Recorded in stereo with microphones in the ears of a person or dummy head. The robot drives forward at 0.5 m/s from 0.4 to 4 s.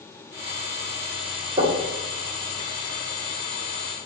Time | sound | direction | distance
1.6 | knocking | 25° right (ahead or behind) | 1.6 m